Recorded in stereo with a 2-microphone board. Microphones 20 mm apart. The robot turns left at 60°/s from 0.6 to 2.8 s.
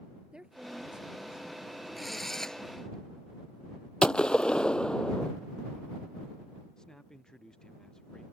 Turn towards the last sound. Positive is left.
turn(degrees=30)  # may be behind; listen again after turning